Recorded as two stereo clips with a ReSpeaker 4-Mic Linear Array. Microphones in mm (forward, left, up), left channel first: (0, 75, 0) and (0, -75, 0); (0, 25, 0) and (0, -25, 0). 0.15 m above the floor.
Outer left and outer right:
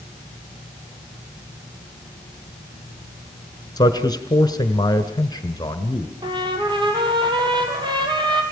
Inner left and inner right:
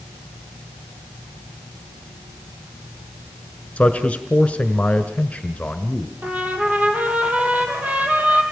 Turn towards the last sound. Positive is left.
turn(degrees=-30)  # may be behind; listen again after turning